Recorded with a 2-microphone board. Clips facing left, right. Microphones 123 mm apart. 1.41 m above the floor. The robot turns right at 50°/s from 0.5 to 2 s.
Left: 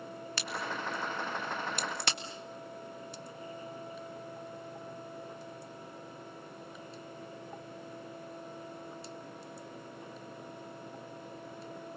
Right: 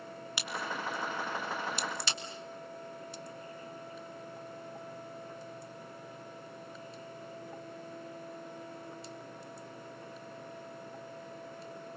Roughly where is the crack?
Centre.